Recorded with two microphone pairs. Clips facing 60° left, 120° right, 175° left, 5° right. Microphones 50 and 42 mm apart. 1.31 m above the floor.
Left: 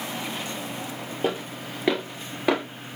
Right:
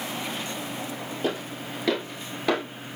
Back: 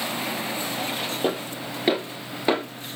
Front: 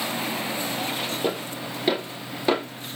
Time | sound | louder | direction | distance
1.2 | footsteps | left 2 dB, back 1 dB | 115° left | 1.8 m